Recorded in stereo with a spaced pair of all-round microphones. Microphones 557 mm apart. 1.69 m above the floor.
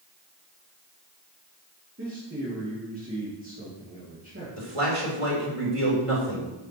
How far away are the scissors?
No scissors in this recording.